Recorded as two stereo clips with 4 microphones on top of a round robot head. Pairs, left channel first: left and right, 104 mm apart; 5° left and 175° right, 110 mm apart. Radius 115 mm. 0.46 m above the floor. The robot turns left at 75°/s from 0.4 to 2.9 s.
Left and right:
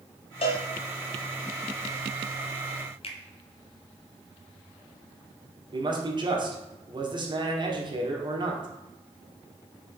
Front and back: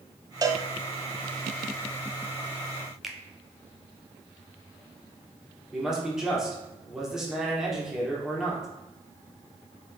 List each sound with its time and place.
0.4 s a cowbell: 130° left, 0.9 m; by 0.7 s 110° left, 0.9 m
3.0 s a finger snap: 100° left, 1.3 m
5.7 s a man speaking: 90° right, 1.9 m